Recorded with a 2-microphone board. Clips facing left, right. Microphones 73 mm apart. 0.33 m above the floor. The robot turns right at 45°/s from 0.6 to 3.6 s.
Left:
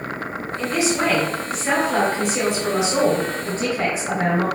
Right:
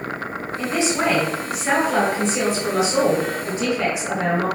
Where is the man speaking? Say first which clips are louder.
Even; 55° right, 1.3 m; by 4.5 s 80° left, 1.3 m.